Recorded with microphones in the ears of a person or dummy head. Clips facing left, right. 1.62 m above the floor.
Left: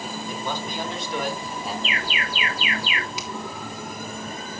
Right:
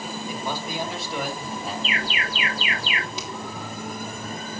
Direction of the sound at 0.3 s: 10° right (ahead or behind).